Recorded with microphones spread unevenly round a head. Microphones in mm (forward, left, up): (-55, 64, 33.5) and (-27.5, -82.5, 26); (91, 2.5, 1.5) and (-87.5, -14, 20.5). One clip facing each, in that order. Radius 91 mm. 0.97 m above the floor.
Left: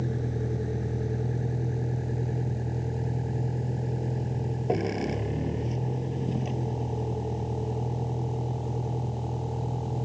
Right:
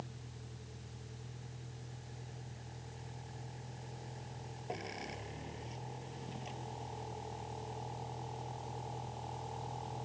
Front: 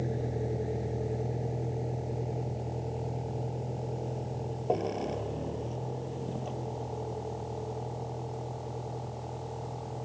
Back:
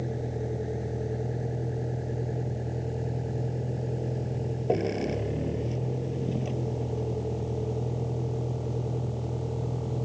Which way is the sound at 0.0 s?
95° left.